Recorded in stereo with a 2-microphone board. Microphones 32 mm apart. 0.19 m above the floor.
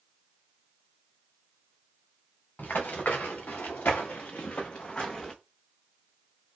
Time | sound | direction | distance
2.6 | running footsteps | 75° left (ahead or behind) | 1.2 m